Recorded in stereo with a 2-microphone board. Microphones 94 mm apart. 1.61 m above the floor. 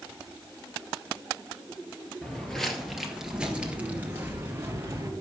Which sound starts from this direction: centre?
Footsteps, at 2.2 s.